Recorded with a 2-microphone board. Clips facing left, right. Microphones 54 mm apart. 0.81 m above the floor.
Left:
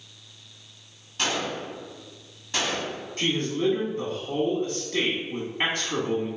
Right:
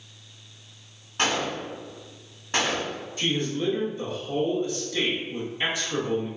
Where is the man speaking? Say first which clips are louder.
Left 2 dB; 55° left (ahead or behind), 1.2 m.